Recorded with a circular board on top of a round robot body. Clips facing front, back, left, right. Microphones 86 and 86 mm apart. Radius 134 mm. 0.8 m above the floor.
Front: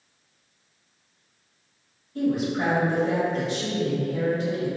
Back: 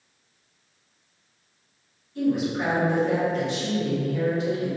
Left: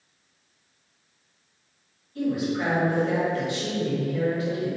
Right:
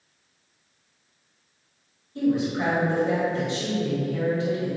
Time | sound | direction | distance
2.1 | a woman speaking | 35° right | 1.6 m